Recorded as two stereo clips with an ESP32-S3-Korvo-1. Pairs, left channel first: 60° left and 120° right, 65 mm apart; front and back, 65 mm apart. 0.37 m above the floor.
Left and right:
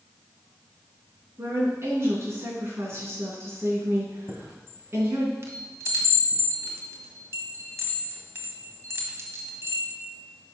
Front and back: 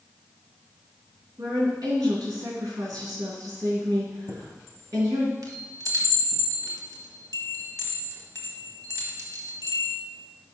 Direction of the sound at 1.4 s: 165° right.